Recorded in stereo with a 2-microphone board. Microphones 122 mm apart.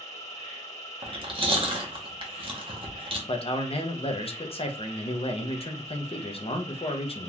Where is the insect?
55° left (ahead or behind), 2.0 m.